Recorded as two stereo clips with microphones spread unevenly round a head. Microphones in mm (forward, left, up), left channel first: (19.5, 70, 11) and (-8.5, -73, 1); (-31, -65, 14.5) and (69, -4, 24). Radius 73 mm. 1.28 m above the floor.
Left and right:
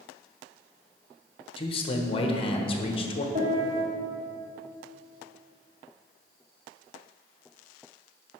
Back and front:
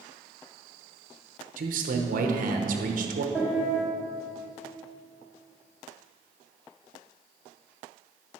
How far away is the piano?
About 1.6 m.